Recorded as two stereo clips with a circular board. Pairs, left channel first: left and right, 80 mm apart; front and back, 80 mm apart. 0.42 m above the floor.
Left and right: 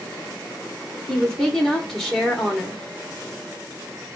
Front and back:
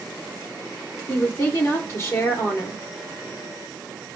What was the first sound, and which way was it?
A woman speaking, 5° left.